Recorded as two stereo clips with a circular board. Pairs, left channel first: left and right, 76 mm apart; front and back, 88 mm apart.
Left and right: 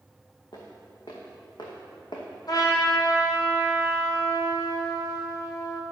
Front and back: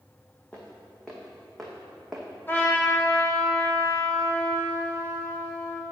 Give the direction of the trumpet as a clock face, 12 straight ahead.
10 o'clock.